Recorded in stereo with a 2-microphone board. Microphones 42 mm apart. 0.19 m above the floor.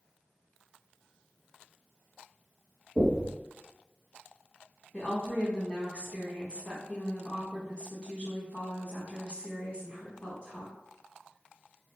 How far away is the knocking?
About 1.0 m.